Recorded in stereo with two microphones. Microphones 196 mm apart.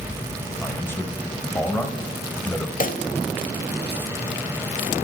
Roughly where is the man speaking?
Centre.